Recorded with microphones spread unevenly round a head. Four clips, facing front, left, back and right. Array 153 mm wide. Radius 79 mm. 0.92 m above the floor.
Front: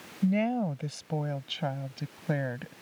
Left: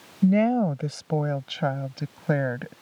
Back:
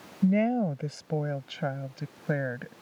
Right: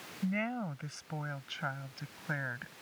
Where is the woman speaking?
110° left; by 2.7 s 100° left.